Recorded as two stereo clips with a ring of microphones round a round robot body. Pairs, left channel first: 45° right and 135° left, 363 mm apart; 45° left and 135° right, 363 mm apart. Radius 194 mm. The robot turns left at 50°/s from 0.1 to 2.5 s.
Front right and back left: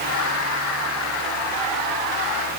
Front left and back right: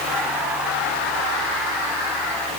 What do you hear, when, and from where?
Only background noise.